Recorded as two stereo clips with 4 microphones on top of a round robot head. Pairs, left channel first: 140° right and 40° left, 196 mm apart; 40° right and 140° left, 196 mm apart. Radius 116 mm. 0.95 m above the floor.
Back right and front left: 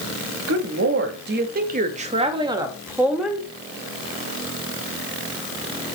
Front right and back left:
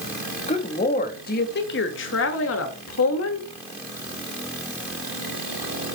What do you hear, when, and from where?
0.5 s a woman speaking: 20° left, 1.6 m; by 3.5 s 50° right, 1.6 m